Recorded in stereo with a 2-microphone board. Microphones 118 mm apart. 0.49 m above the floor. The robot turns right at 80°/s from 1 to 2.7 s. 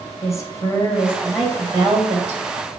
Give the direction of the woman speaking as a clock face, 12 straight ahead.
7 o'clock.